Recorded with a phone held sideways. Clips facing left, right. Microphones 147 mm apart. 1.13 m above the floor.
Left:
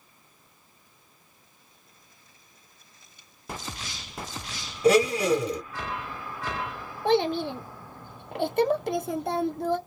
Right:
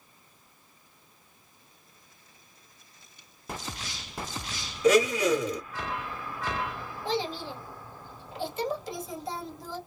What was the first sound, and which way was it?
A blender, 35° left (ahead or behind).